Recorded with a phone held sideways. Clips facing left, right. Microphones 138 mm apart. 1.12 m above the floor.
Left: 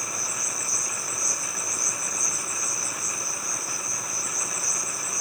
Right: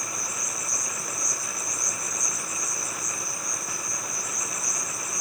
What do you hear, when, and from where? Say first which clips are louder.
0.0 s an insect: even; centre (ahead or behind), 4 m